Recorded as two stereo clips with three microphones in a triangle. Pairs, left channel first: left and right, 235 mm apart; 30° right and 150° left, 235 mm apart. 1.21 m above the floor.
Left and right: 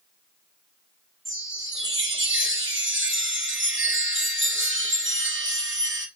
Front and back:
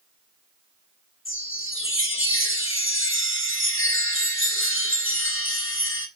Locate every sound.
1.2 s a chime: 55° right, 1.9 m